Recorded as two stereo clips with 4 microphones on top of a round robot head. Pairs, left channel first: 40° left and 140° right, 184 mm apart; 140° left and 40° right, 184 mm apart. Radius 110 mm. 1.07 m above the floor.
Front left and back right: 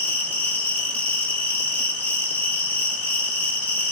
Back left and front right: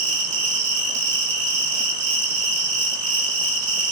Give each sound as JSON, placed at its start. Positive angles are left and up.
{"t": 0.0, "sound": "an insect", "azimuth_deg": -40, "distance_m": 5.5}